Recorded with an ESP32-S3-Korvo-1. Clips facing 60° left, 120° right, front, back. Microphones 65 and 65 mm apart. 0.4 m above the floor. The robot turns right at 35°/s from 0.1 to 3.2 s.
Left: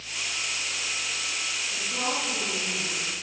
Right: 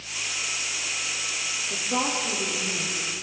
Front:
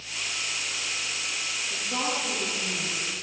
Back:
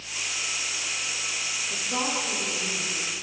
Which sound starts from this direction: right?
A woman speaking, at 1.7 s.